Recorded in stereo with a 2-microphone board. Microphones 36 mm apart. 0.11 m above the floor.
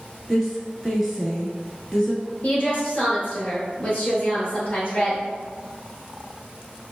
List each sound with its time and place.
0.3 s a woman speaking: 5° right (ahead or behind), 1.1 m
2.4 s a woman speaking: 35° left (ahead or behind), 1.8 m